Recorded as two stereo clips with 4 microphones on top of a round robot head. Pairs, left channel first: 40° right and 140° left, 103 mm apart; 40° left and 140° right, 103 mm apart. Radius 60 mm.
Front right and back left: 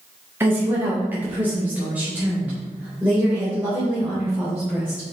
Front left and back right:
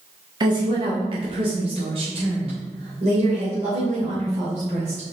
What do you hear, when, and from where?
0.4 s a woman speaking: 160° right, 1.4 m; by 5.1 s 140° right, 4 m